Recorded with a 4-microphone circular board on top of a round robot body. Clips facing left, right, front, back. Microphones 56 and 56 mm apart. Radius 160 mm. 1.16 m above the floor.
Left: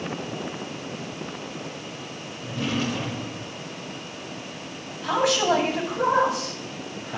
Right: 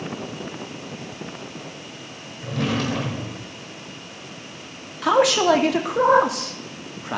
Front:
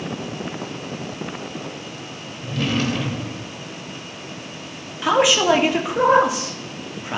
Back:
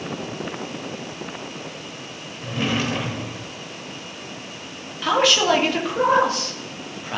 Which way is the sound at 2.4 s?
110° right.